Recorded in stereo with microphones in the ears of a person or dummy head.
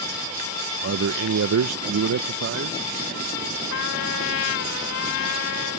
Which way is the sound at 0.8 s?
55° right (ahead or behind).